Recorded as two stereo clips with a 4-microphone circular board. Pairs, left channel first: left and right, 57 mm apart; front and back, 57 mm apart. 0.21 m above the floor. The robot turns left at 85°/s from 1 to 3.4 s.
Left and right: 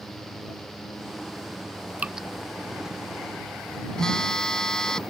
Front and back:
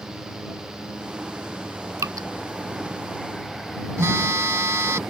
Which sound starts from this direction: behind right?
Dripping, at 2.0 s.